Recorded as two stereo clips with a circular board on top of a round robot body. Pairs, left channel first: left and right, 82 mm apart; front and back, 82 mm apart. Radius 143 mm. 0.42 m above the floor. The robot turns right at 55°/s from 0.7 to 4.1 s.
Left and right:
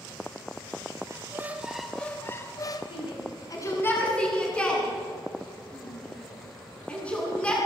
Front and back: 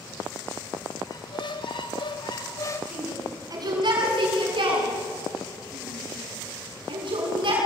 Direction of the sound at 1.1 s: 40° right.